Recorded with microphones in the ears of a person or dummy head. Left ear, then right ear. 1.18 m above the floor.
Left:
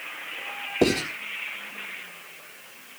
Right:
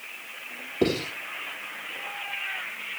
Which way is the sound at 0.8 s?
35° left (ahead or behind).